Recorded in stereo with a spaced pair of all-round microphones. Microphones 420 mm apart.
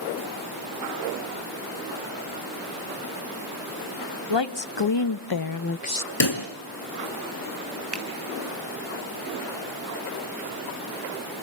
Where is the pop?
70° left (ahead or behind), 3 m.